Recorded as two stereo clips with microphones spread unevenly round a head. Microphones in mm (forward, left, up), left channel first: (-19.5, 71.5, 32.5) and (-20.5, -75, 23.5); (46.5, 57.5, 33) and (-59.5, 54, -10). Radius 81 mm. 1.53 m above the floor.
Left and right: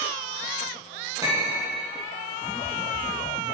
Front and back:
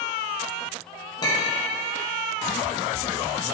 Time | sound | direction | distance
1.2 | a clink | 20° right | 1.0 m